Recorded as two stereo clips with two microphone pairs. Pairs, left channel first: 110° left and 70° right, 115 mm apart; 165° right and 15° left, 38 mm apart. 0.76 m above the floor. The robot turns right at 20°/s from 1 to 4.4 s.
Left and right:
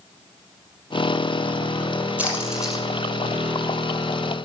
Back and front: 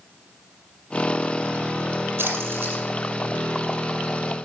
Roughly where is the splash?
Ahead.